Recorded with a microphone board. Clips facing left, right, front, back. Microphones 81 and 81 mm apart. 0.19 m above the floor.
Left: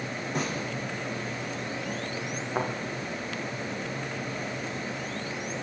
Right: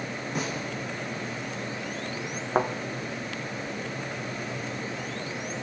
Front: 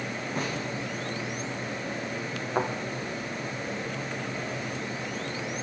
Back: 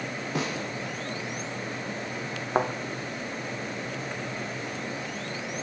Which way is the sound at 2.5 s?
130° right.